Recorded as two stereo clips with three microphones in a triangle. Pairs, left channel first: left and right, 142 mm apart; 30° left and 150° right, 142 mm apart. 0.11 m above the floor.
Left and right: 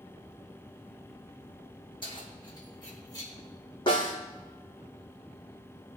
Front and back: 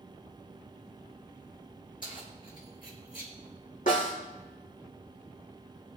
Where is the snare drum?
35° left, 4 m.